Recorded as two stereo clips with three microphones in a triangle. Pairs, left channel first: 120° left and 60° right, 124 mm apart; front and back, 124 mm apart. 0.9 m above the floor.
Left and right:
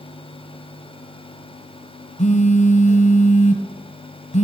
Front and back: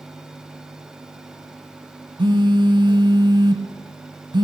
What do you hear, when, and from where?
2.2 s a phone buzzing: 130° left, 1.1 m